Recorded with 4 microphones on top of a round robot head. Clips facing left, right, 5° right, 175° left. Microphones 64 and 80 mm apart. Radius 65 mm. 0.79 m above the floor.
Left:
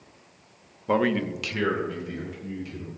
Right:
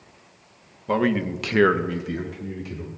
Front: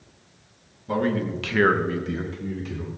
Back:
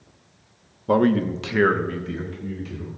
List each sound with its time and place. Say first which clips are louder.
0.9 s a man speaking: right 1 dB, back 6 dB; 170° left, 1.0 m; by 2.9 s 60° right, 2.5 m